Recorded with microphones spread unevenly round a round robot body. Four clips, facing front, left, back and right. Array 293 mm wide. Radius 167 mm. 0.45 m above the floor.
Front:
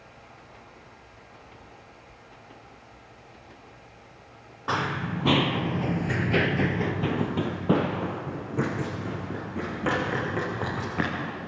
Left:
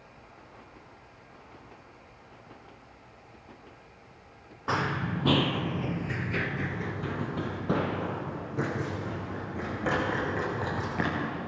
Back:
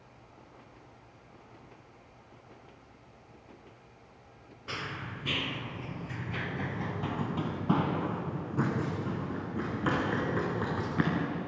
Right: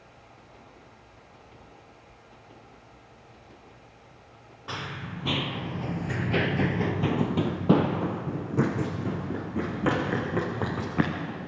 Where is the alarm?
I don't hear an alarm.